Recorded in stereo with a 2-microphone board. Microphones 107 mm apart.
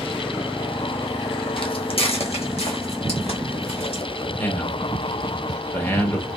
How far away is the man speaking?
About 0.8 m.